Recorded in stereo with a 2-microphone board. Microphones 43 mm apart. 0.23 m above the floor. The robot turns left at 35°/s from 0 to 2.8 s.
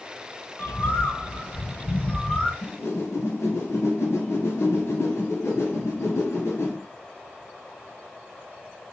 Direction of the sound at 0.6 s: 90° left.